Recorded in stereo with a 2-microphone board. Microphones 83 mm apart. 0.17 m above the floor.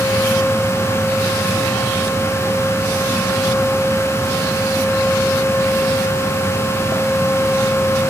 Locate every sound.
Only background noise.